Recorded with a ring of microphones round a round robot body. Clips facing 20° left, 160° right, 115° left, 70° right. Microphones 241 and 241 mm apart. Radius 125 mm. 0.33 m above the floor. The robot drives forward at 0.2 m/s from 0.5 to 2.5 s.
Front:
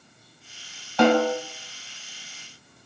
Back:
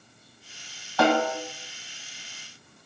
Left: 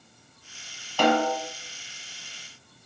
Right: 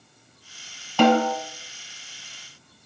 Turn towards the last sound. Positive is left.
turn(degrees=-70)